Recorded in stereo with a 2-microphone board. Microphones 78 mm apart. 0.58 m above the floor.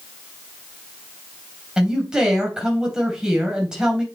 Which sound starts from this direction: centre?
A man speaking, at 1.8 s.